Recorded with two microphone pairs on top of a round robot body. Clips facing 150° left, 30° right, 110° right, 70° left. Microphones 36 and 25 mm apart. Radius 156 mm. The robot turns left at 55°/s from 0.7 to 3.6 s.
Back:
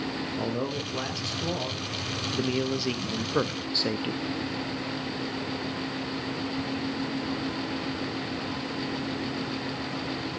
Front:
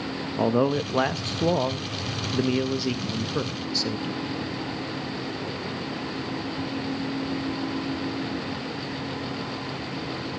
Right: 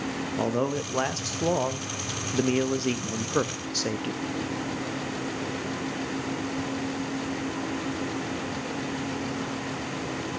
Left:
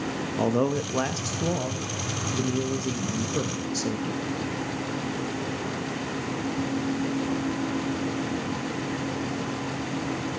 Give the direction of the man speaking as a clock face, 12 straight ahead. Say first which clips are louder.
Front 11 dB, left 3 dB; 12 o'clock.